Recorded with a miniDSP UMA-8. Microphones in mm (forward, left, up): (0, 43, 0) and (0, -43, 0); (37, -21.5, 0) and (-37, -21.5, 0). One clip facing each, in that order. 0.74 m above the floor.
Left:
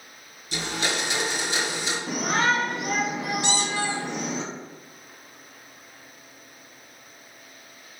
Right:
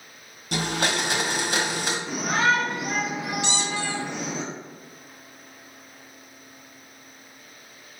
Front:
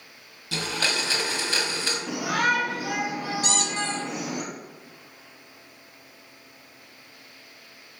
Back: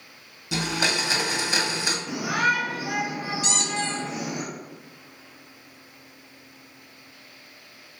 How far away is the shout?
About 3 m.